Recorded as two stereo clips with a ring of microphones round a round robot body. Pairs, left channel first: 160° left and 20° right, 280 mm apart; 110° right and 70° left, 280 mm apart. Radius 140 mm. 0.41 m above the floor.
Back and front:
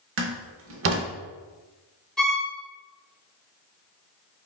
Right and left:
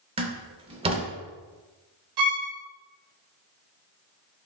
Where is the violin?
70° left, 1.1 m.